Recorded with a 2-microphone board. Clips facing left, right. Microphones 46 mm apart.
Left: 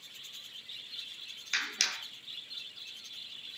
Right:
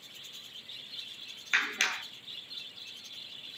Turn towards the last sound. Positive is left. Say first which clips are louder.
# right 5 dB
turn(degrees=-30)  # may be behind; listen again after turning